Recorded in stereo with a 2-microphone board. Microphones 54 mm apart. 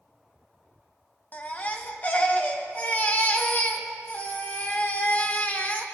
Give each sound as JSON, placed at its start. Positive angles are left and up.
{"t": 1.3, "sound": "a baby crying", "side_deg": 35, "distance_m": 0.9}